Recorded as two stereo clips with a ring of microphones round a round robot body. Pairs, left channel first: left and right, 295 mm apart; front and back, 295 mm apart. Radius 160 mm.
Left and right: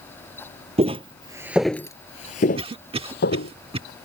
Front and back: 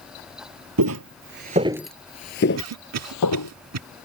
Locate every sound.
0.8 s footsteps: 155° right; by 3.5 s 30° left
2.6 s a cough: 160° right